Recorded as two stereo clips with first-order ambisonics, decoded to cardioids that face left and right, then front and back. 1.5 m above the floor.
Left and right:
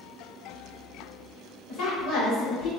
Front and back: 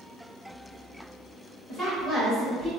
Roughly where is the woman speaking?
Ahead left.